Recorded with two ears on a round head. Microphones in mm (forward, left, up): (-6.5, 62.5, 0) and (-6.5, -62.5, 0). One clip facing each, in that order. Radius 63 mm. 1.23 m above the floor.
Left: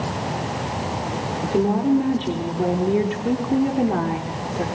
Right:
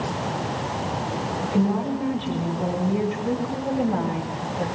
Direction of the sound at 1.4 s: 55° left (ahead or behind).